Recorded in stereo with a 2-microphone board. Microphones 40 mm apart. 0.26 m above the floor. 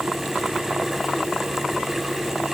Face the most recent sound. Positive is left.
No sound to turn to.